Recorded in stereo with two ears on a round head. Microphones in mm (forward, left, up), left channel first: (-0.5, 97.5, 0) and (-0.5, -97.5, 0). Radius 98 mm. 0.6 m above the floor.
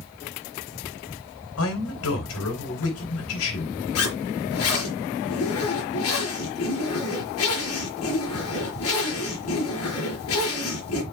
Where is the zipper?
75° left (ahead or behind), 4.5 m.